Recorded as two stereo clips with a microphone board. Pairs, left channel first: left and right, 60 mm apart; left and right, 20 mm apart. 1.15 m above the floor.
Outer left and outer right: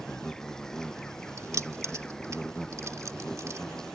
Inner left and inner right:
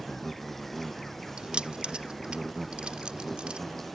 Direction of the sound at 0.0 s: 10° left (ahead or behind).